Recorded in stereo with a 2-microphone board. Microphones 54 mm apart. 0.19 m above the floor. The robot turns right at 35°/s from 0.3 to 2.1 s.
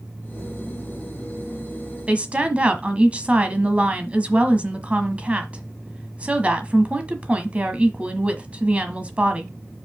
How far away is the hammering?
No hammering in this recording.